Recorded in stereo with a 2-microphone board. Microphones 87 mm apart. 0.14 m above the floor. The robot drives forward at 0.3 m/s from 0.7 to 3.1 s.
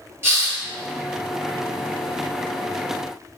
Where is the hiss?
30° right (ahead or behind), 0.8 m.